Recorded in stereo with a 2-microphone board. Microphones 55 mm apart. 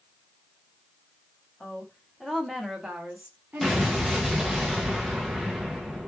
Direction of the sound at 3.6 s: 5° right (ahead or behind).